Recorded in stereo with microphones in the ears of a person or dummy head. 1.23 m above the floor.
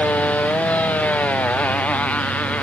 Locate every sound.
0.0 s a motorcycle: 5° left (ahead or behind)